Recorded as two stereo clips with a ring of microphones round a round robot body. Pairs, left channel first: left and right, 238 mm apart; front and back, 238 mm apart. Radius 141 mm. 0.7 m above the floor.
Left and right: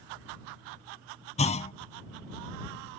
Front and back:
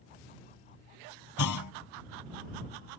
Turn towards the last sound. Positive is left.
turn(degrees=25)